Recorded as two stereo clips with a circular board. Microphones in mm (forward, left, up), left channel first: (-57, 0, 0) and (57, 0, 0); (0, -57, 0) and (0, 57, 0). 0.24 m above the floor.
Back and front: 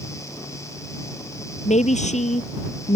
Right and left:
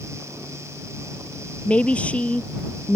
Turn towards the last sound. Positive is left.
turn(degrees=-170)